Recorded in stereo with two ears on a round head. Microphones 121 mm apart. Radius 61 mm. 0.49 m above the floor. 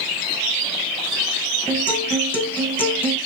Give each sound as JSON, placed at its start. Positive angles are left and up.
{"t": 1.7, "sound": "a guitar", "side_deg": 15, "distance_m": 3.0}